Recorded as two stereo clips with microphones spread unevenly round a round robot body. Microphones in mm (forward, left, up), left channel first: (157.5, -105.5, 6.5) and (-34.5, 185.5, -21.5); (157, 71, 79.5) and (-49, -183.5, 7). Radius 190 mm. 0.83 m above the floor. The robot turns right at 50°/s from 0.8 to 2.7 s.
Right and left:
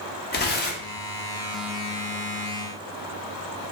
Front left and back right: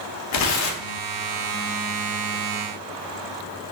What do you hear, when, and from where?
0.3 s tearing paper: 5° left, 0.6 m; by 1.0 s 15° left, 0.6 m